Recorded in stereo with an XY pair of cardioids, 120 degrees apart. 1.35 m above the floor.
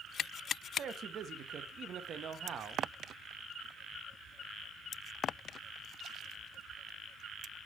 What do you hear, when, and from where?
0.8 s a man speaking: 50° right, 0.8 m